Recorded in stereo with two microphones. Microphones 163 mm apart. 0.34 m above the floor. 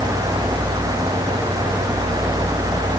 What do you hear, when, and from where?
Only background noise.